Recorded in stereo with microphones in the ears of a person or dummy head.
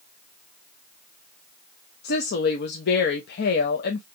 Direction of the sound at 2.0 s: 65° left (ahead or behind).